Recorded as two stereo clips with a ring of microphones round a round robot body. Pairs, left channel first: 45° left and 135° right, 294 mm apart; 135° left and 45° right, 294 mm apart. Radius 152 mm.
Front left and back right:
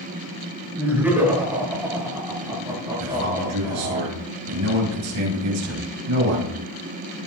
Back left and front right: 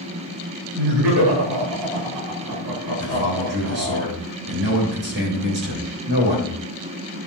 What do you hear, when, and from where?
0.8 s laughter: 50° right, 7.5 m; by 4.0 s 65° right, 9 m
3.0 s a man speaking: 100° right, 6 m